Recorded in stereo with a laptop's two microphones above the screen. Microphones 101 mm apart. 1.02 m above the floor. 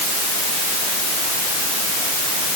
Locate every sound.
Only background noise.